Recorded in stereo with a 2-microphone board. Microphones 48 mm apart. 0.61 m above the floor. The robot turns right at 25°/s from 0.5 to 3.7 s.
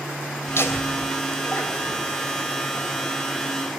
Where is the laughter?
65° left (ahead or behind), 3 m; by 2.0 s 35° left (ahead or behind), 3 m.